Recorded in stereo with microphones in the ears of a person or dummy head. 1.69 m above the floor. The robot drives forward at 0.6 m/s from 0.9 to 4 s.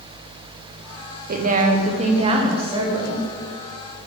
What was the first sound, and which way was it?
A woman speaking, 55° right (ahead or behind).